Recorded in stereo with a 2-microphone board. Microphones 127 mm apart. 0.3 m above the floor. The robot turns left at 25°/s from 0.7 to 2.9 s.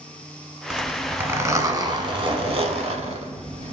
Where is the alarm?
I don't hear an alarm.